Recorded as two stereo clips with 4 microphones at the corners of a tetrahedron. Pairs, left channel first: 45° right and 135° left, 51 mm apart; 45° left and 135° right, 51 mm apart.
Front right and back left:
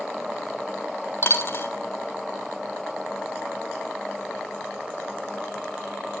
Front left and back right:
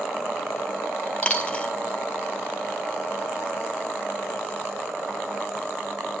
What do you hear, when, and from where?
1.2 s a dropped coin: 15° right, 1.1 m